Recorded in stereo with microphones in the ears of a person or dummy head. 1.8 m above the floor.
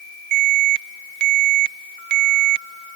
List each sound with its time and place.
0.3 s an alarm: 60° right (ahead or behind)